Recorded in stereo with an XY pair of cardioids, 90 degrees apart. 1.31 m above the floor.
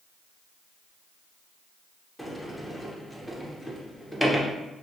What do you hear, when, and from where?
2.2 s a sliding door: 10° left, 0.6 m